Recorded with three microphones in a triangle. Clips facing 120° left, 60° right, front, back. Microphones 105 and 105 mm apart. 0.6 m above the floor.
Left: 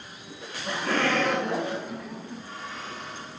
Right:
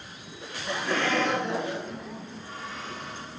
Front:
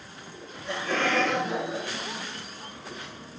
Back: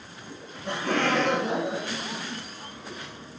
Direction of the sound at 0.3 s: 165° left.